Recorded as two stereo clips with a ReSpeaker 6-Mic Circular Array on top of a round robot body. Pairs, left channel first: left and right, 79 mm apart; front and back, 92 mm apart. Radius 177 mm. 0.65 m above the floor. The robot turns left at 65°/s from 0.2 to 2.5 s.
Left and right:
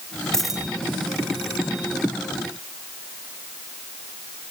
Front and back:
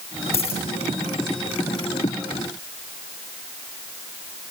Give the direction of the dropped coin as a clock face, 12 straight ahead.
12 o'clock.